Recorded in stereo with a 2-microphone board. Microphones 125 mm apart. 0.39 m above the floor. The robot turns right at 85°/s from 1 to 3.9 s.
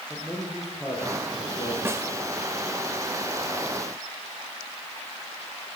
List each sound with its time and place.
0.1 s a man speaking: straight ahead, 9.5 m; by 1.8 s 60° left, 9.5 m
1.9 s a snare drum: 20° right (ahead or behind), 0.6 m; by 2.1 s 35° right (ahead or behind), 0.6 m